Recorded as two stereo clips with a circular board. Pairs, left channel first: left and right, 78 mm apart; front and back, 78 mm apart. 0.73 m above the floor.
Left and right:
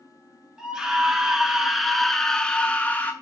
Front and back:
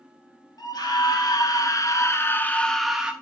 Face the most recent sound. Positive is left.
turn(degrees=120)